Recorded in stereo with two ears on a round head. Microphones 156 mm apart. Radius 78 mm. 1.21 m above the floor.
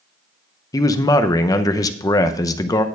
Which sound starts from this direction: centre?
A man speaking, at 0.7 s.